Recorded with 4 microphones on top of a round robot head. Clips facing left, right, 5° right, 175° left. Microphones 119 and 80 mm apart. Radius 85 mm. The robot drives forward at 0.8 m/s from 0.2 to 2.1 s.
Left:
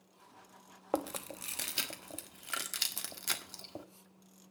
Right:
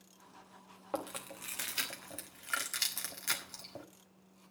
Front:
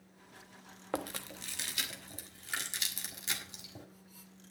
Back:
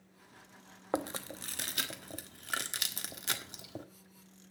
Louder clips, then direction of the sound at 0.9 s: Left 4 dB, back 3 dB; 120° left.